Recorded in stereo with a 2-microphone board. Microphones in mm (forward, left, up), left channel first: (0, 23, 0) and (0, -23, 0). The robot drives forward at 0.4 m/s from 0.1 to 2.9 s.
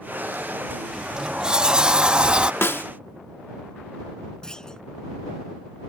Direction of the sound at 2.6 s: 60° left (ahead or behind).